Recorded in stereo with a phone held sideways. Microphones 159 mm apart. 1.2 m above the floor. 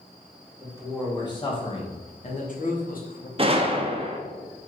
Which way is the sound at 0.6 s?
20° left (ahead or behind).